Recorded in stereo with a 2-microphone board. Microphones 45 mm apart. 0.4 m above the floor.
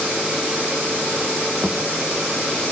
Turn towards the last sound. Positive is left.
turn(degrees=-45)  # may be behind; listen again after turning